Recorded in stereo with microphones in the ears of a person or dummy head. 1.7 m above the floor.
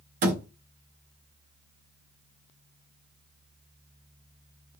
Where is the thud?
50° right (ahead or behind), 1.4 m.